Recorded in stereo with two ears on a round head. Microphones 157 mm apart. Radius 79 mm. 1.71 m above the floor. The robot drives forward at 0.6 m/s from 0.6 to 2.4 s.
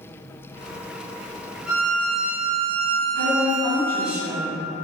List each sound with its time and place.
1.7 s a violin: centre (ahead or behind), 1.4 m
3.1 s a woman speaking: 65° left (ahead or behind), 1.4 m